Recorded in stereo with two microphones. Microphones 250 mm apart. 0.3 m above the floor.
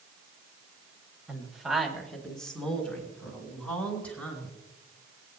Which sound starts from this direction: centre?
A woman speaking, at 1.3 s.